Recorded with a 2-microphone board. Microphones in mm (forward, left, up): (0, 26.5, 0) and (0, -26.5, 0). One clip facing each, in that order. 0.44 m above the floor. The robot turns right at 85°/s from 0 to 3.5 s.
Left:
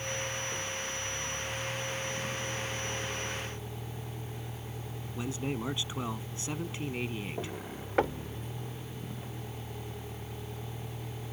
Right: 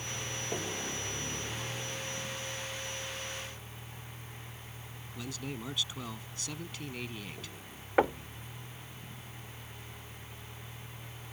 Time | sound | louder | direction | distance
0.0 | a vehicle | left 4 dB | 170° right | ?
5.2 | a man speaking | left 6 dB | 25° left (ahead or behind) | ?
8.0 | knocking | right 2 dB | 10° right (ahead or behind) | ?